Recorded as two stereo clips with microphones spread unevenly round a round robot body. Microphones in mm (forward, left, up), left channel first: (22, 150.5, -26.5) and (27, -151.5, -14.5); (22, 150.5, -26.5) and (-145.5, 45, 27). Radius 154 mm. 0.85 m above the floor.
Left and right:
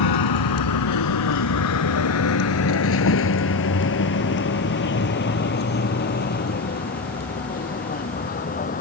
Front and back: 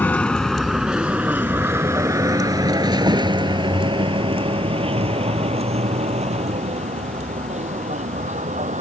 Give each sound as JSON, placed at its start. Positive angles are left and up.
{"t": 0.0, "sound": "a vehicle", "azimuth_deg": 115}